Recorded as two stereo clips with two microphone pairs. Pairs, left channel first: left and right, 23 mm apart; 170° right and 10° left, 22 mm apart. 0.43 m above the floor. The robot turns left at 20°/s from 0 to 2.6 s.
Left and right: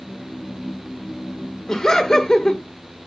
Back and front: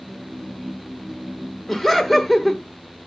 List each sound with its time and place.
1.7 s laughter: 130° left, 1.4 m; by 2.6 s 110° left, 1.4 m